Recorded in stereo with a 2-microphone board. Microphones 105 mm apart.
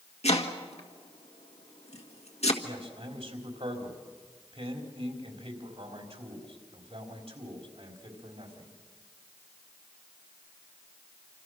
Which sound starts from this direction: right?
A man speaking, at 2.6 s.